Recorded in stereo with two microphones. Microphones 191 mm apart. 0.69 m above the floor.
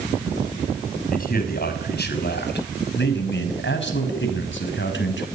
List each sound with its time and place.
1.1 s a man speaking: 50° left (ahead or behind), 5.5 m; by 5.2 s 80° left, 5.5 m